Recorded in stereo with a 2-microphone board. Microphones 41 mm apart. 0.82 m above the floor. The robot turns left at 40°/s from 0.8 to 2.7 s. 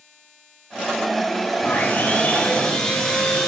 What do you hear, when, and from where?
1.6 s sawing: 60° left, 2 m; by 3.5 s 15° left, 2 m